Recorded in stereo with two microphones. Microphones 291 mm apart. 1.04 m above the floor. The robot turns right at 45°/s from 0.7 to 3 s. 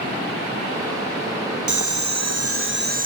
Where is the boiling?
90° right, 0.7 m; by 3.1 s 30° right, 0.7 m.